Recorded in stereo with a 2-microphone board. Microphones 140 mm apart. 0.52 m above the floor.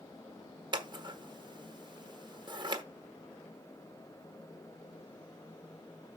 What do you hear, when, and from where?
0.7 s scissors: 35° right (ahead or behind), 1.2 m